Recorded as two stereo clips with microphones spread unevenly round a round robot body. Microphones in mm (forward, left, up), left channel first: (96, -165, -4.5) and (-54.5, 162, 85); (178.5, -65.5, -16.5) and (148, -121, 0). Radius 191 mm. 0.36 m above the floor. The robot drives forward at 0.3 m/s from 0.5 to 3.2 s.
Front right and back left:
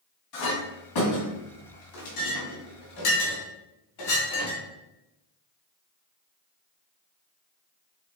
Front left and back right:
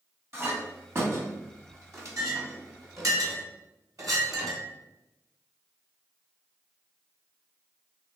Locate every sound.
0.3 s a clink: 60° right, 1.9 m; by 4.6 s 90° right, 1.7 m